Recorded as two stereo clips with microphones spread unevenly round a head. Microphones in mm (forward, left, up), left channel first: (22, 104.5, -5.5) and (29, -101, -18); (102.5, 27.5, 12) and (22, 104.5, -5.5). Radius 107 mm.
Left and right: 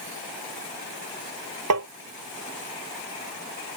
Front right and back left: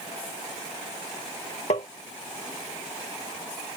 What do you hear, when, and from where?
1.7 s tapping: 95° right